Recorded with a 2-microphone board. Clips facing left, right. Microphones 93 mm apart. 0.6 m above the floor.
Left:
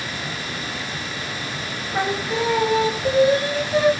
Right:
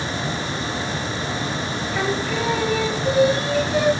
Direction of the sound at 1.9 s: 30° left (ahead or behind).